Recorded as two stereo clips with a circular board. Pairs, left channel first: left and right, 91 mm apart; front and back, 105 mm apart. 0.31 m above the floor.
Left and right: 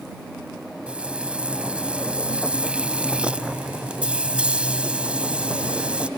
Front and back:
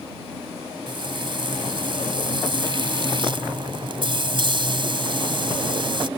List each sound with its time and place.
0.9 s frying: 165° right